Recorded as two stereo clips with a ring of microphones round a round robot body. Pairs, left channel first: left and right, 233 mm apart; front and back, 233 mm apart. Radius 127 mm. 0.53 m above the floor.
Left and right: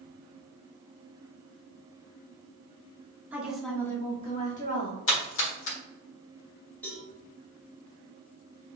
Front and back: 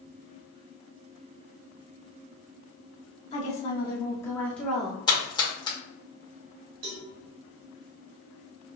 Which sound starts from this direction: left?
A splash, at 5.1 s.